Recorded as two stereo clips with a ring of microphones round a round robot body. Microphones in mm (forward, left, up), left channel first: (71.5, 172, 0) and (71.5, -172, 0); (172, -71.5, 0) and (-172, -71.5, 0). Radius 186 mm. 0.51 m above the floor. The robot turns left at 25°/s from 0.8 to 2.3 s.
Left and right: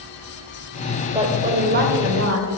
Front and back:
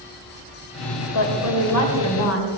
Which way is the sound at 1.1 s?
15° right.